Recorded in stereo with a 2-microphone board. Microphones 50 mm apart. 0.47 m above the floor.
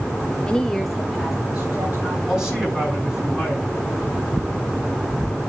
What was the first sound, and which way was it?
A woman speaking, 20° left (ahead or behind).